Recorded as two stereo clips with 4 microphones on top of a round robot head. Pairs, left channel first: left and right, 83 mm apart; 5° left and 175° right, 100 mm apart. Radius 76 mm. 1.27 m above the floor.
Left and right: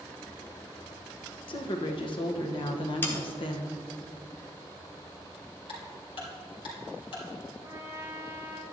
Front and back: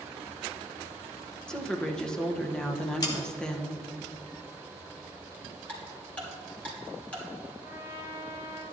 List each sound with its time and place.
1.5 s a woman speaking: 85° left, 1.2 m
3.0 s sawing: 40° left, 1.0 m
5.7 s ticking: 80° left, 3 m
7.6 s a trumpet: 35° right, 1.8 m